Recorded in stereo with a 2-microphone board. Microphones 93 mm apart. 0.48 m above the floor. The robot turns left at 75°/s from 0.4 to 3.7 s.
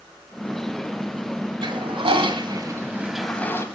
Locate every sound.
1.6 s a toilet flushing: 60° right, 0.9 m; by 3.6 s 150° left, 0.9 m